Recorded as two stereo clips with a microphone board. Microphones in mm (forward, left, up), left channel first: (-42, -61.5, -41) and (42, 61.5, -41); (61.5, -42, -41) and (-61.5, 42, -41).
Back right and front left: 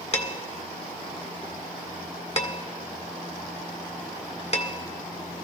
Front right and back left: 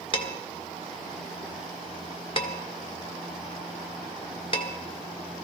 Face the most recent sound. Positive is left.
turn(degrees=-85)